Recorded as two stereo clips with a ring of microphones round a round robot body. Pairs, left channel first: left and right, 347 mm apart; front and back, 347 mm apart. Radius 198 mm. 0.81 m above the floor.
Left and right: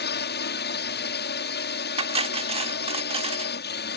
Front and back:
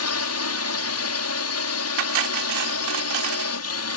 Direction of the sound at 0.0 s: 35° left.